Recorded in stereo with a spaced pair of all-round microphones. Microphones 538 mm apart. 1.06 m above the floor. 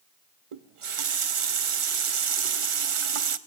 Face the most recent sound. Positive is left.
turn(degrees=-65)  # may be behind; listen again after turning